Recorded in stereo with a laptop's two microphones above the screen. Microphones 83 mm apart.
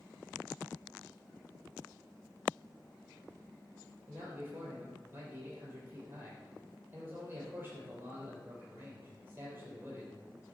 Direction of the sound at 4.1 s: 30° right (ahead or behind).